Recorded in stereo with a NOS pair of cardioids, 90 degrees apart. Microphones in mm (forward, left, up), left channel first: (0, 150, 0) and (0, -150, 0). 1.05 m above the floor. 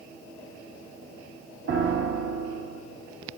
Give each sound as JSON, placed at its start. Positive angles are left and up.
{"t": 1.7, "sound": "a piano", "azimuth_deg": -40, "distance_m": 1.4}